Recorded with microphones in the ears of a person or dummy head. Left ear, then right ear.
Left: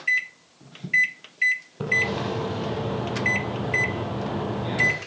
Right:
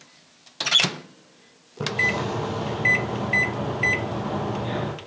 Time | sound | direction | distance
1.8 | a splash | 5° right (ahead or behind) | 6.5 m